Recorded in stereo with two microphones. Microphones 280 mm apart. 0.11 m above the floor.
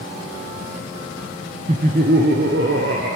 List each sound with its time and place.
1.7 s laughter: 25° right (ahead or behind), 1.1 m; by 3.2 s 50° right (ahead or behind), 2.5 m